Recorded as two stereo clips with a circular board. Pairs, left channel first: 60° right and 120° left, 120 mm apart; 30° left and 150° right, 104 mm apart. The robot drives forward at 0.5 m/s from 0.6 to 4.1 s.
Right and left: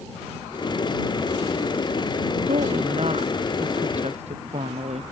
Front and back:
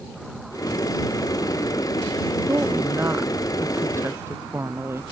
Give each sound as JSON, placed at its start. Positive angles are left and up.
{"t": 2.5, "sound": "a woman speaking", "azimuth_deg": 140}